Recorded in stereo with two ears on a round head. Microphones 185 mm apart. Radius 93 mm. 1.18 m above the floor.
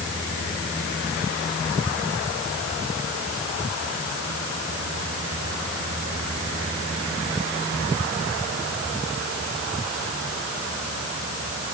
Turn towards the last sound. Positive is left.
No sound to turn to.